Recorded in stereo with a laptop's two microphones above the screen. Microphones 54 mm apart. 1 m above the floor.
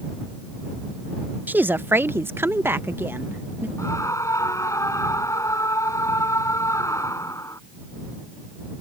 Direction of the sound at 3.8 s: 85° left.